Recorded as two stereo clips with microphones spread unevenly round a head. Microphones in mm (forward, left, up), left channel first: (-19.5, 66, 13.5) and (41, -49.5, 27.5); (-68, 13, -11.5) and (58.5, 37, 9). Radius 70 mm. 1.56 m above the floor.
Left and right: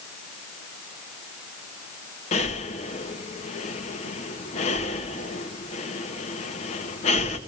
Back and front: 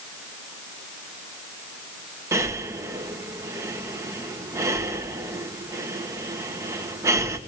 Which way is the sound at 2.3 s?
75° left.